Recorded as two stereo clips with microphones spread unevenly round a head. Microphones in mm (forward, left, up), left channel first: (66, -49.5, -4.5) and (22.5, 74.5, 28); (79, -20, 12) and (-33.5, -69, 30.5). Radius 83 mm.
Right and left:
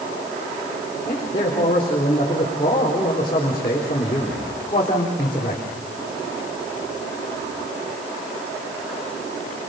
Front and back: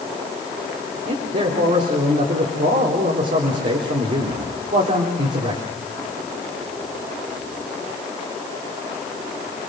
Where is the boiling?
I don't hear boiling.